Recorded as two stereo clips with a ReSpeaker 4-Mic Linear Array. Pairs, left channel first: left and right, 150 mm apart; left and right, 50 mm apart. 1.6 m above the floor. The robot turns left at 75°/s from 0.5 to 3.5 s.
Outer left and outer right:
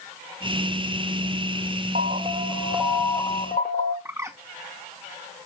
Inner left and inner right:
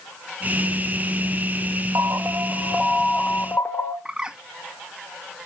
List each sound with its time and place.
1.9 s an alarm: 115° right, 1.2 m; by 4.0 s 125° left, 1.2 m
4.0 s a bird: 20° right (ahead or behind), 1.0 m